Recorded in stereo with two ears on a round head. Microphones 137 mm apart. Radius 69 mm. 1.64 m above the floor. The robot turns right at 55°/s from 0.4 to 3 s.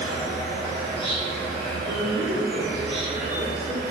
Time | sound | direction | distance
0.0 | an insect | 95° left | 0.9 m
1.9 | a woman speaking | 90° right | 0.6 m